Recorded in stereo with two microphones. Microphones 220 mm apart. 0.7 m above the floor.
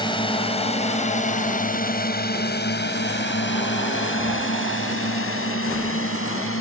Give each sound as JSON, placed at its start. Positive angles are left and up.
{"t": 0.0, "sound": "a drone", "side_deg": 20}